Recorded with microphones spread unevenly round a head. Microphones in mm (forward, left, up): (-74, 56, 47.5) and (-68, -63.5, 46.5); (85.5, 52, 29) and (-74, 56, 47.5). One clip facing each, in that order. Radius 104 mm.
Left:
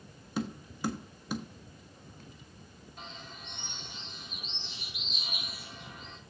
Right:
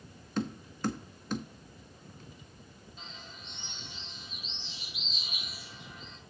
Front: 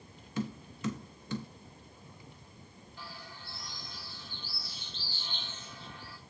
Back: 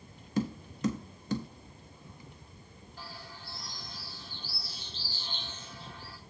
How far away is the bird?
About 4 m.